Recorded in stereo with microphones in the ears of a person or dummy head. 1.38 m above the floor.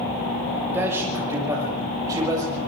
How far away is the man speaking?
About 5.5 m.